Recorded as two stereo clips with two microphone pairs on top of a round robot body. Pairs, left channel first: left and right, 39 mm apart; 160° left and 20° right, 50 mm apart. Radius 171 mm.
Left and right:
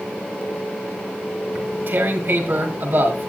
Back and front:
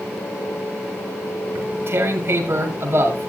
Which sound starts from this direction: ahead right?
Tearing paper, at 1.6 s.